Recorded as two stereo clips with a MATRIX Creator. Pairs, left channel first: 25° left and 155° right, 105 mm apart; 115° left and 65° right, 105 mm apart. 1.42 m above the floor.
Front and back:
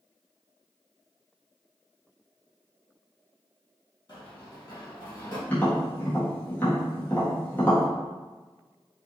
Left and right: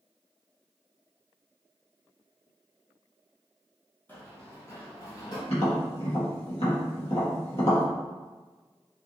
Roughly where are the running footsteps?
Ahead left.